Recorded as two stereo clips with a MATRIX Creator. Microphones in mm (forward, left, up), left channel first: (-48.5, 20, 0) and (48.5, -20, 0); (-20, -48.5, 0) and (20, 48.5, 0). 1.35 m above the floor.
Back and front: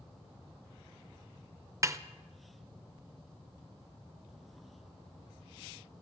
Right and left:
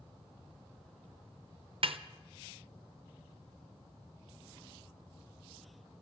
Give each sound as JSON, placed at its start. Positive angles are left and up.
{"t": 1.8, "sound": "a snare drum", "azimuth_deg": 40, "distance_m": 0.5}